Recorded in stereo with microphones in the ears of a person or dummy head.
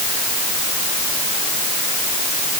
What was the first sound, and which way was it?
Only background noise.